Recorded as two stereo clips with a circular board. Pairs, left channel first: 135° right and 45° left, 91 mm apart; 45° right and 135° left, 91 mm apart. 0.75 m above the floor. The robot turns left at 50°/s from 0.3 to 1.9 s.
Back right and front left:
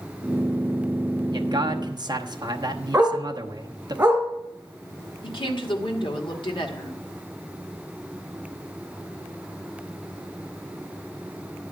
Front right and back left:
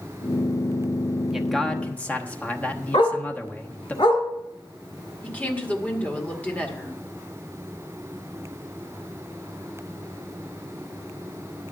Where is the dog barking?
25° right, 2.5 m.